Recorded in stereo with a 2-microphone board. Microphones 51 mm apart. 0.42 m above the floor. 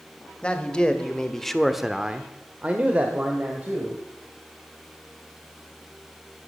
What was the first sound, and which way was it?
A man speaking, 20° left (ahead or behind).